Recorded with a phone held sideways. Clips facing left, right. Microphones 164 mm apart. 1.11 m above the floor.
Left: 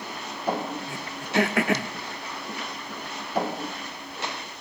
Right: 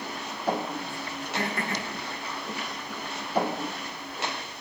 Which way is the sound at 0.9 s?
80° left.